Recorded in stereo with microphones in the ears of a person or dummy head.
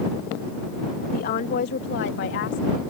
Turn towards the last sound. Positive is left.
turn(degrees=65)  # may be behind; listen again after turning